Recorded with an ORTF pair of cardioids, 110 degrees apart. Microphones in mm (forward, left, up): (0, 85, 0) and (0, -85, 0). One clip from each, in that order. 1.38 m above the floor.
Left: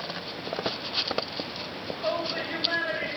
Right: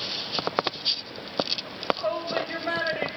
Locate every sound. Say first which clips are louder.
1.6 s a shout: right 3 dB; 35° right, 7.5 m